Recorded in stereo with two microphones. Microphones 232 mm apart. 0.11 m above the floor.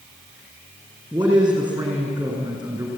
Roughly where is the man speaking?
Centre.